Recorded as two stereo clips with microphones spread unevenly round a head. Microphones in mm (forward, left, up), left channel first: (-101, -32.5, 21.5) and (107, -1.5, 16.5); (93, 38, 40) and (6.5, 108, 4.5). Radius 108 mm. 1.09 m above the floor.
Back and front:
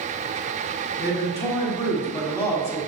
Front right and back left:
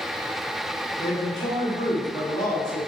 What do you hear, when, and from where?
1.0 s a man speaking: 95° right, 1.6 m